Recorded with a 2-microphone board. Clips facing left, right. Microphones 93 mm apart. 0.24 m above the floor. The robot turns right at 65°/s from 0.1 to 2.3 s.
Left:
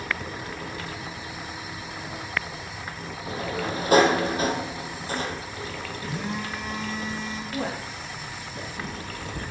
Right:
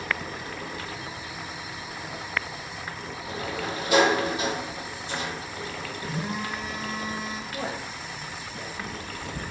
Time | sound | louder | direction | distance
3.3 | a sliding door | left 3 dB | 40° left (ahead or behind) | 2 m
6.0 | a phone buzzing | even | 5° right (ahead or behind) | 5.5 m
7.5 | a woman speaking | left 2 dB | 60° left (ahead or behind) | 6.5 m